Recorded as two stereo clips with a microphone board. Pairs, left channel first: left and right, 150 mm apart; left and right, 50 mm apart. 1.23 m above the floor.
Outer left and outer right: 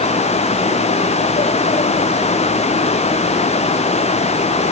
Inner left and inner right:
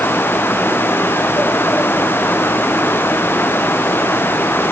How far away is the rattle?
No rattle in this recording.